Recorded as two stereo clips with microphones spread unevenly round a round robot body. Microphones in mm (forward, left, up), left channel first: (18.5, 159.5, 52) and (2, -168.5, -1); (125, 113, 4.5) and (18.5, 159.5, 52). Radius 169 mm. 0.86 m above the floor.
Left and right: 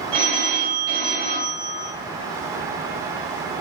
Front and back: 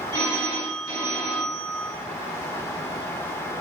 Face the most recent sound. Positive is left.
turn(degrees=-95)